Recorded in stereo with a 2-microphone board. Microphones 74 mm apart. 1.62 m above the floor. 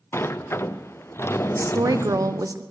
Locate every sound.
0.1 s a sliding door: 35° left (ahead or behind), 0.5 m
1.6 s a woman speaking: 50° right (ahead or behind), 1.0 m